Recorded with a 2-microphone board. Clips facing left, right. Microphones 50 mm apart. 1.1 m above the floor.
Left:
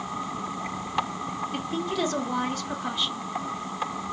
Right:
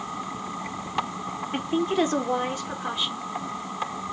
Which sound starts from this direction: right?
A woman speaking, at 1.5 s.